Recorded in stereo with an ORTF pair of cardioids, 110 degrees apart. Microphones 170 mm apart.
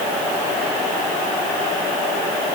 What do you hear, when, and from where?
Only background noise.